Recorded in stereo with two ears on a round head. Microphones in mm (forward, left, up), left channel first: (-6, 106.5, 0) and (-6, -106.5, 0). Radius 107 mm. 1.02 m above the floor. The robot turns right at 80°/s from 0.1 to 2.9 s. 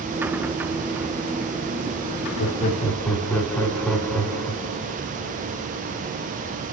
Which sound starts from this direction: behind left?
Laughter, at 2.4 s.